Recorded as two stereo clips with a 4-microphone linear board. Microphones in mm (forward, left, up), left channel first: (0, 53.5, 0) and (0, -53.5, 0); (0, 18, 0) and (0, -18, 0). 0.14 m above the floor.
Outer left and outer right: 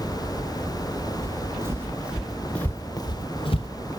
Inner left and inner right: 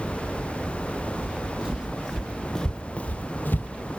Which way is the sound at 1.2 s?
30° right (ahead or behind).